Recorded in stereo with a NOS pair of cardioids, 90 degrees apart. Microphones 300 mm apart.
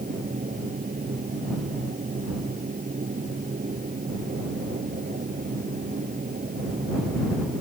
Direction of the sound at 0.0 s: 30° right.